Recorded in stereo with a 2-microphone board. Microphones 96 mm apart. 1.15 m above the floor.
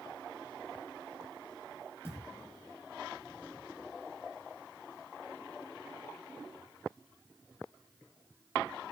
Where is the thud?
25° left (ahead or behind), 6.5 m.